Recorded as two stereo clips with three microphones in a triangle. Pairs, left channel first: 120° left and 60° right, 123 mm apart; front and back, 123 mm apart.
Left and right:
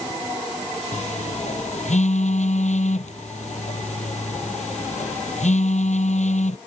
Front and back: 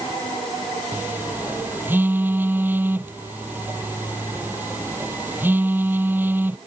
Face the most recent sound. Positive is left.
turn(degrees=105)